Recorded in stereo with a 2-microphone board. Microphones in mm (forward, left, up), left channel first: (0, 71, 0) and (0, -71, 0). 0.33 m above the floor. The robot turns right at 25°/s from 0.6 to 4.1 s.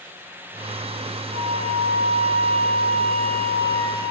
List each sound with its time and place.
1.3 s a flute: 95° right, 7.5 m; by 4.0 s 30° right, 7.5 m